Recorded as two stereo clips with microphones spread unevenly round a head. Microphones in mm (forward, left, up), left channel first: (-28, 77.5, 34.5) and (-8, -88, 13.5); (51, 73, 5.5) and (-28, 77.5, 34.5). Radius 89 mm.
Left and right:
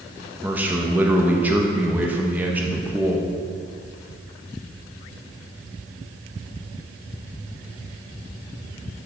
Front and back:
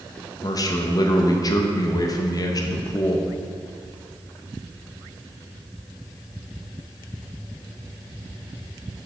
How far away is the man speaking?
About 1.0 m.